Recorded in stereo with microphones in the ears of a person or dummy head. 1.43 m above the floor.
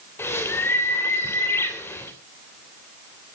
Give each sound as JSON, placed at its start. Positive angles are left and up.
{"t": 0.2, "sound": "a bird", "side_deg": 10, "distance_m": 3.0}